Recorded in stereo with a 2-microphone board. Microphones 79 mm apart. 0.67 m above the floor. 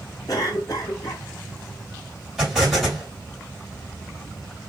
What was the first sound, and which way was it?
A cough, 50° left (ahead or behind).